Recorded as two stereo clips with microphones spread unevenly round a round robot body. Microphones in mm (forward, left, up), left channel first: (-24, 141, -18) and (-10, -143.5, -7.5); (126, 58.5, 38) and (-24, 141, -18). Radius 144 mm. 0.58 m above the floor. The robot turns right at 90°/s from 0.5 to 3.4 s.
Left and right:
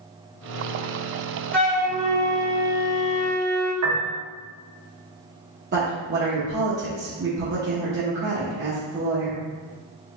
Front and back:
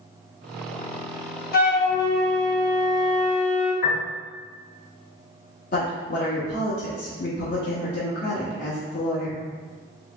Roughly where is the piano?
Right.